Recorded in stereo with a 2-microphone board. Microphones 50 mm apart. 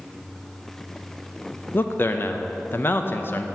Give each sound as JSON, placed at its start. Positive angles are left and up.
{"t": 1.7, "sound": "a man speaking", "side_deg": 50, "distance_m": 0.6}